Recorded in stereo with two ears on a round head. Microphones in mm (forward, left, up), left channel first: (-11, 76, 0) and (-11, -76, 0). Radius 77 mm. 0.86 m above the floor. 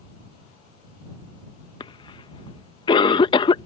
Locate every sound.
1.8 s a cough: 30° left (ahead or behind)